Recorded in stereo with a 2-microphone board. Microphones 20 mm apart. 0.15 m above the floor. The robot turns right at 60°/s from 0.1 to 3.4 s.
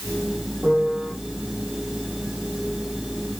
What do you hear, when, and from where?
0.6 s a piano: 70° right (ahead or behind), 7.5 m